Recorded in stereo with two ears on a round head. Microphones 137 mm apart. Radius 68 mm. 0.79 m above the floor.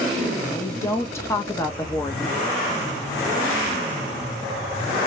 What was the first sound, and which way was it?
A woman speaking, 20° left (ahead or behind).